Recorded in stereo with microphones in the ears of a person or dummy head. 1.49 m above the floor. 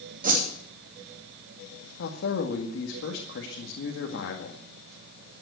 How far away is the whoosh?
About 2.5 m.